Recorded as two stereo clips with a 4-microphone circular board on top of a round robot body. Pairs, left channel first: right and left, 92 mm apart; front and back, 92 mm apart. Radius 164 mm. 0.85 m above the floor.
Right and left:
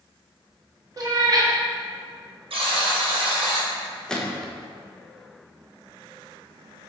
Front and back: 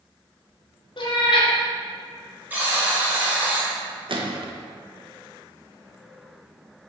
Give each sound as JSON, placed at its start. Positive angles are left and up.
{"t": 1.0, "sound": "a cat meowing", "azimuth_deg": 35, "distance_m": 1.1}
{"t": 2.5, "sound": "a buzzer", "azimuth_deg": 110, "distance_m": 1.6}
{"t": 4.1, "sound": "a gunshot", "azimuth_deg": -175, "distance_m": 1.1}